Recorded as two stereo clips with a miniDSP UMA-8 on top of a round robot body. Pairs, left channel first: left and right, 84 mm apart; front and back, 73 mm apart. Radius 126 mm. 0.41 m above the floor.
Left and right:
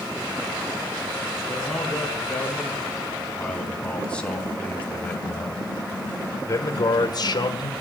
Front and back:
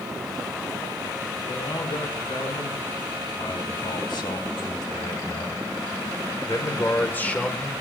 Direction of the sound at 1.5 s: 5° left.